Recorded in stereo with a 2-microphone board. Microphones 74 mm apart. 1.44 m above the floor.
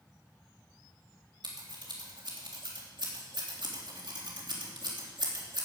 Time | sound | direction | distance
1.4 | scissors | 80° right | 3.5 m